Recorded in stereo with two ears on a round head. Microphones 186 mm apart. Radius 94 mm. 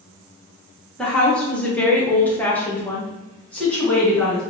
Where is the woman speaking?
5° left (ahead or behind), 0.8 m.